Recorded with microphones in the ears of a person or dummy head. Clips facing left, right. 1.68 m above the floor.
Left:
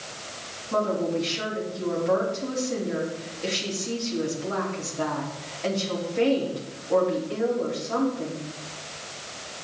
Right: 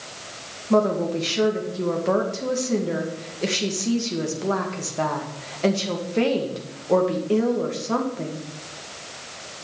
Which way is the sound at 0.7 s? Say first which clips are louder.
Right 5 dB; 65° right (ahead or behind).